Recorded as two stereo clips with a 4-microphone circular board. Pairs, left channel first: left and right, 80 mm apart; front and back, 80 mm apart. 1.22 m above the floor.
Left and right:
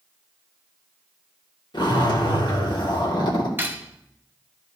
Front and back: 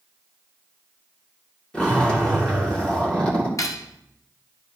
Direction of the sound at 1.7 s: 75° left.